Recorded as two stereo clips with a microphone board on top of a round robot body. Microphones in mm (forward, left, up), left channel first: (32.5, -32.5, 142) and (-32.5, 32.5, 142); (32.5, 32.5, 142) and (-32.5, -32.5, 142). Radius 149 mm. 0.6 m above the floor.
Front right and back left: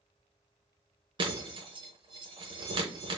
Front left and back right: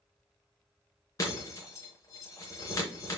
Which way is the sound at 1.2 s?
100° left.